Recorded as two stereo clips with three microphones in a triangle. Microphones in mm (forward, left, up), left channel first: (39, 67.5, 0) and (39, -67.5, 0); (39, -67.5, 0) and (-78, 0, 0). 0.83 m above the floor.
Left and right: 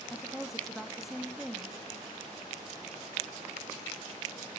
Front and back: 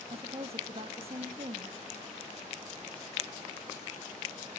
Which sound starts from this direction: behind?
A woman speaking, at 0.1 s.